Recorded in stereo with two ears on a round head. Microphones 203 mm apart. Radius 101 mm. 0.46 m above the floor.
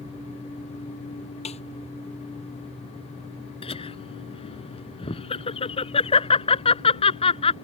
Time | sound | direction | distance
1.4 | a snare drum | 30° left (ahead or behind) | ?
3.6 | laughter | 25° left (ahead or behind) | ?